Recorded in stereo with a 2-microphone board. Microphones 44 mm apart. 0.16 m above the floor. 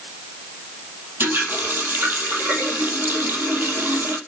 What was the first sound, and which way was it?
A running tap, 55° right (ahead or behind).